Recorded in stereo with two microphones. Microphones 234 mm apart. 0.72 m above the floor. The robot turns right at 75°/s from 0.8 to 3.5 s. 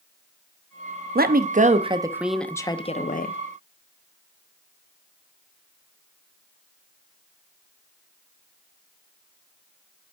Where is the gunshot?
I don't hear a gunshot.